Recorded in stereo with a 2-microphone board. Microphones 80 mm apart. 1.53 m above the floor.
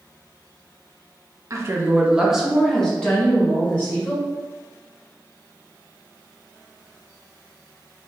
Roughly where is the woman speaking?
Right.